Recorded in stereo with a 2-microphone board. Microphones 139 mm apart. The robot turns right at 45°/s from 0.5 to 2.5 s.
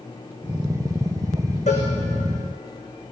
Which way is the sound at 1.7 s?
55° left (ahead or behind).